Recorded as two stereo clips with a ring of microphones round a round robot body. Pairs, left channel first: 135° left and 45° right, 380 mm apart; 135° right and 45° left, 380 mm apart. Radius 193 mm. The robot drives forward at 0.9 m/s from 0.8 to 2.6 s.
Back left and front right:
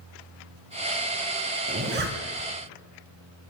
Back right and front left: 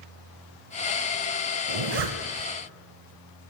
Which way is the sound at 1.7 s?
15° left.